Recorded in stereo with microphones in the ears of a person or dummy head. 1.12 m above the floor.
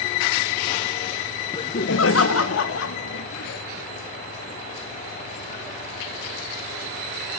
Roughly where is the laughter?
Centre.